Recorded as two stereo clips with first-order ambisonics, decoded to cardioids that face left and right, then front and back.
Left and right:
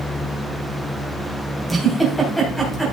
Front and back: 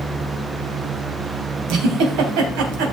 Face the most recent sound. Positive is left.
turn(degrees=180)